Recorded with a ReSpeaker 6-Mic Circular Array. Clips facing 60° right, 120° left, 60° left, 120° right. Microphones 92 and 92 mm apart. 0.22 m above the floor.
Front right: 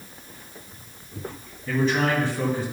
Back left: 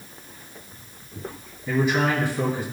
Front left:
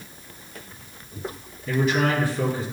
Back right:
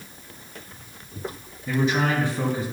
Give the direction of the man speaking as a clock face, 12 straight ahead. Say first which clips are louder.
Even, front left 1 dB; 6 o'clock.